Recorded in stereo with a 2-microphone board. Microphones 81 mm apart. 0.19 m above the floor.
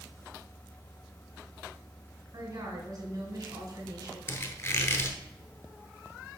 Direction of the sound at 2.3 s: 40° right (ahead or behind).